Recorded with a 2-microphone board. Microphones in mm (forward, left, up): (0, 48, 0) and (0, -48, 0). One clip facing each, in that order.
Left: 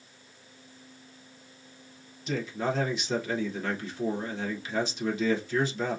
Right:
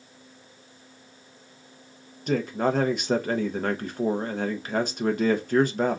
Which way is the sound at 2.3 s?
50° right (ahead or behind).